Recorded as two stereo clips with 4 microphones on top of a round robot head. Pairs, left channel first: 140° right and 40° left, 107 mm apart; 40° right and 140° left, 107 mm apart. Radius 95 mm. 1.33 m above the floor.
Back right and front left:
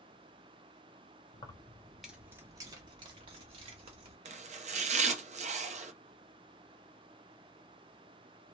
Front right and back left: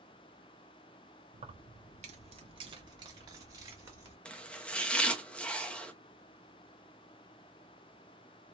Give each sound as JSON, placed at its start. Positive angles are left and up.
{"t": 1.3, "sound": "keys jangling", "azimuth_deg": 170, "distance_m": 0.7}
{"t": 4.2, "sound": "chopping", "azimuth_deg": 40, "distance_m": 0.7}